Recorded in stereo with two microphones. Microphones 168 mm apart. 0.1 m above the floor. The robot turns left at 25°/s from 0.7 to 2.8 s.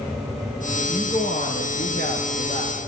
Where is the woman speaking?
115° left, 4 m; by 2.8 s 65° left, 4 m.